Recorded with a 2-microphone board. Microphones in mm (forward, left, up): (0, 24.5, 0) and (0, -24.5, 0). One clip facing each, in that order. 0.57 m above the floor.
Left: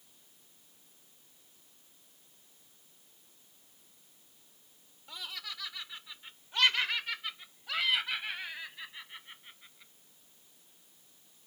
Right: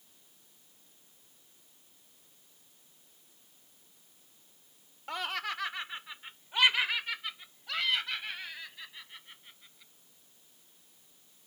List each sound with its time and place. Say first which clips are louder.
5.1 s laughter: right 9 dB; 60° right (ahead or behind); by 9.9 s 15° left (ahead or behind)